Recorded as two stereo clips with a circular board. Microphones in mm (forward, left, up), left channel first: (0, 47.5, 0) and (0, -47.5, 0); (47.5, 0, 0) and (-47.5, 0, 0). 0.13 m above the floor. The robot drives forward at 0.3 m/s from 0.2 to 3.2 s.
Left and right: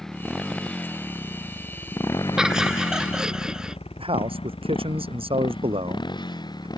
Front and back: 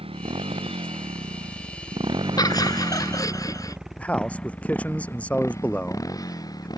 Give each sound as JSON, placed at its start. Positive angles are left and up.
{"t": 0.0, "sound": "a motorcycle", "azimuth_deg": 175}
{"t": 2.4, "sound": "laughter", "azimuth_deg": -10}
{"t": 4.0, "sound": "a man speaking", "azimuth_deg": -75}